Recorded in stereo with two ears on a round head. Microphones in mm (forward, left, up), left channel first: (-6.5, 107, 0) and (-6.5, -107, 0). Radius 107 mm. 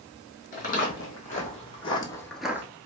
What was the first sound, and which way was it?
Footsteps, 35° left (ahead or behind).